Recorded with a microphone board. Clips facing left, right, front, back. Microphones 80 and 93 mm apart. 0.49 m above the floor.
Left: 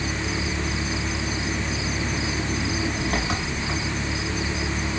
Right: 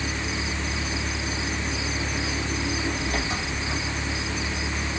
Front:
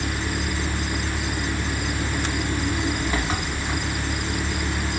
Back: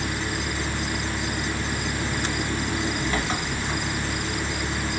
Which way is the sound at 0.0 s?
80° left.